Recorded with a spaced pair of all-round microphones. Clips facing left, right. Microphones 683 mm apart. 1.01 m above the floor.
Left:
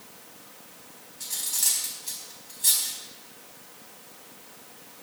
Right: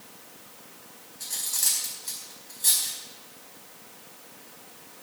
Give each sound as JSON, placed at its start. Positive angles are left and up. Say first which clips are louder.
{"t": 1.2, "sound": "cutlery clinking", "louder": "left 1 dB", "side_deg": 55, "distance_m": 4.0}